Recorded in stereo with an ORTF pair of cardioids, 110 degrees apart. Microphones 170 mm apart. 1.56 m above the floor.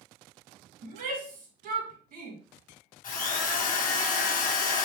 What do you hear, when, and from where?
0.8 s a shout: 60° right, 1.7 m
3.0 s a drill: 50° left, 1.3 m